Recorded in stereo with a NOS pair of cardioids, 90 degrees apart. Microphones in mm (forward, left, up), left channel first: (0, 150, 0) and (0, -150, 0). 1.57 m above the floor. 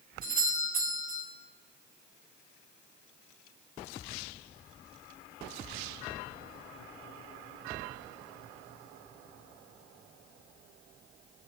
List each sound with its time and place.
0.2 s a doorbell: 30° right, 8.5 m